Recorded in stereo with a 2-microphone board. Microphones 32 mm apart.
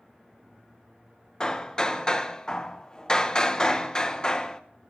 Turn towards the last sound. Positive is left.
turn(degrees=25)  # may be behind; listen again after turning